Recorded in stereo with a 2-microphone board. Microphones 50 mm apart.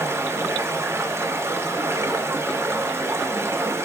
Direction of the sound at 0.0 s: 60° right (ahead or behind).